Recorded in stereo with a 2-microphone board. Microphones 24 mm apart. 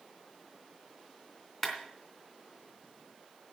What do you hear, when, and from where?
1.6 s a clap: 10° left (ahead or behind), 3 m